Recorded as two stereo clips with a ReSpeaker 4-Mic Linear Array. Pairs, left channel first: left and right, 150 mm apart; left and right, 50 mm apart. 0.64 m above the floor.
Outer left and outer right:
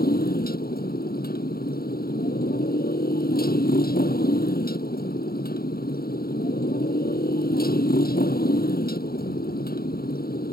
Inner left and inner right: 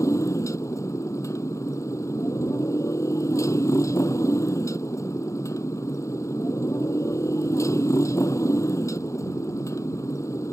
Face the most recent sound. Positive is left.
turn(degrees=90)